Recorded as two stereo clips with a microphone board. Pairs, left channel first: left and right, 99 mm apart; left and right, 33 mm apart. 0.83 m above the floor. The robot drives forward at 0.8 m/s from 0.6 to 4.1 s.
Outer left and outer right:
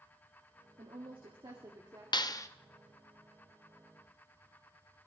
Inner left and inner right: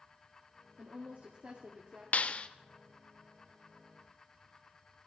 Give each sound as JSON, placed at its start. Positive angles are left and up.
{"t": 0.8, "sound": "a woman speaking", "side_deg": -60, "distance_m": 1.5}
{"t": 2.1, "sound": "a clap", "side_deg": 45, "distance_m": 0.6}